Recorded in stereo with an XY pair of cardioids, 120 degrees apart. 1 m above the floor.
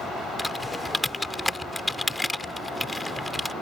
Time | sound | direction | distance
0.4 | typing on a keyboard | 5° left | ?